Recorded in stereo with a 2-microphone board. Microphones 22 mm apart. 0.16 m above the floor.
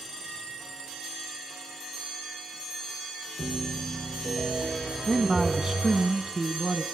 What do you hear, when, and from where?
3.4 s a piano: 25° right (ahead or behind), 5.5 m
5.1 s a man speaking: 20° right (ahead or behind), 1.1 m